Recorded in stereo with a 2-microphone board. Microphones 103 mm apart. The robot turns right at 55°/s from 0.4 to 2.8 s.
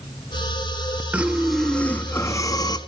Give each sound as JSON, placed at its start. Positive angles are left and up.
{"t": 1.1, "sound": "breathing", "azimuth_deg": -20, "distance_m": 0.8}